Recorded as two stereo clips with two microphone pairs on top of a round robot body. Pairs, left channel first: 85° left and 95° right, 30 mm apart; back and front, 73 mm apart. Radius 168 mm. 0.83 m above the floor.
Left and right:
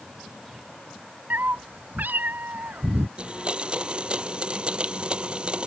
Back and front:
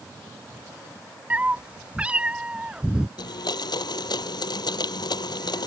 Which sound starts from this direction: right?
A cat meowing, at 1.3 s.